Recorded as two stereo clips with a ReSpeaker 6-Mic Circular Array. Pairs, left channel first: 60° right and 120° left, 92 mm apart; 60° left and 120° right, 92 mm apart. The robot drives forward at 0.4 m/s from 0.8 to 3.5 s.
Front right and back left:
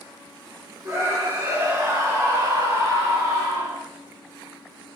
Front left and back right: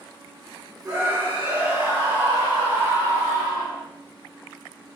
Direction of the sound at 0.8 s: 175° left.